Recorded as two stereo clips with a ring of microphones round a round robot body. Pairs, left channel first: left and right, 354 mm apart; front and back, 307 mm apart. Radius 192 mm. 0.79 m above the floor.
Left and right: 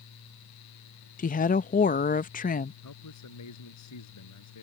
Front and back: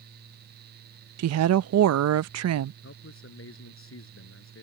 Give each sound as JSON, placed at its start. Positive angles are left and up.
{"t": 1.2, "sound": "a woman speaking", "azimuth_deg": 155}
{"t": 2.8, "sound": "a man speaking", "azimuth_deg": 45}